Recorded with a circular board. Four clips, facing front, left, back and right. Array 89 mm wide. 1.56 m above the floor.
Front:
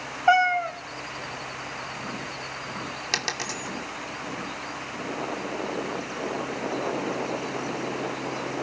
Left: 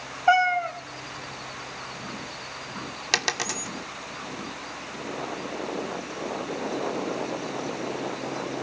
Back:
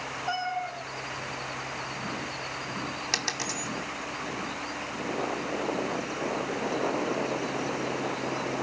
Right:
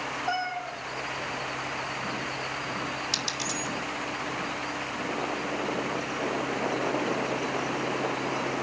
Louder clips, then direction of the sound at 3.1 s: Left 3 dB, front 2 dB; 75° left.